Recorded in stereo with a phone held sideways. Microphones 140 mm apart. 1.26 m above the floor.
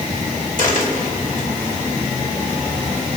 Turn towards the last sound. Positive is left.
turn(degrees=65)  # may be behind; listen again after turning